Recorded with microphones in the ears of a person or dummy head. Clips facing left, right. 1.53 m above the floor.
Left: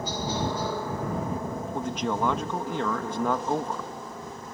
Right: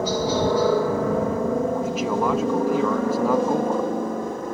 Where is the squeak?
No squeak in this recording.